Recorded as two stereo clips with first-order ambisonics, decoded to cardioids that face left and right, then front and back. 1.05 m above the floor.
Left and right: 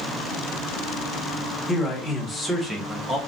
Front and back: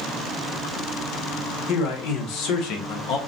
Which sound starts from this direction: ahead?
A man speaking, at 1.7 s.